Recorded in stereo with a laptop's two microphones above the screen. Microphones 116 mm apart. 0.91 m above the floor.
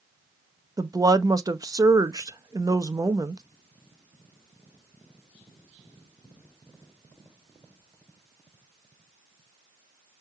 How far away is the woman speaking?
About 0.6 m.